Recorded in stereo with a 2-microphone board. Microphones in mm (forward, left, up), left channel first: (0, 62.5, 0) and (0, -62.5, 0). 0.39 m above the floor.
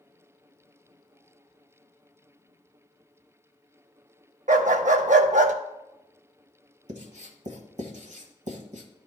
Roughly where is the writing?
Right.